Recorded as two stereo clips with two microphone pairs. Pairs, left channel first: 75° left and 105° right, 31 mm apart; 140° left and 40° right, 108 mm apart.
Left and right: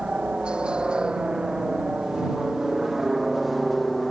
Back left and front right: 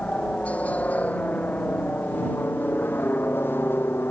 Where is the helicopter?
145° right; by 4.1 s 155° left.